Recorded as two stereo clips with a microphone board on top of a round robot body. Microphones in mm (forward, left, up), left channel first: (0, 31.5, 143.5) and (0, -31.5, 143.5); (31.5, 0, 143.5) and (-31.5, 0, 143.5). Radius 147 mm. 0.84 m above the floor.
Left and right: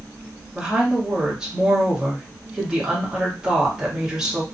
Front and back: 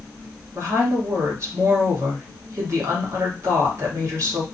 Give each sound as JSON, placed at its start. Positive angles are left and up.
{"t": 0.6, "sound": "a woman speaking", "azimuth_deg": -165, "distance_m": 1.3}